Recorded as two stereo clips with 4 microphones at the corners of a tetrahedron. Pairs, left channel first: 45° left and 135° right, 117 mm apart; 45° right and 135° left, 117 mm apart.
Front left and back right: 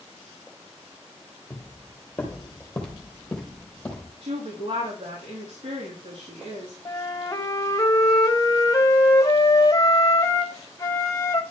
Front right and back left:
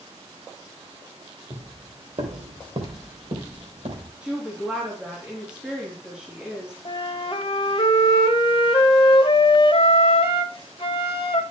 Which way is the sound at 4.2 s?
145° right.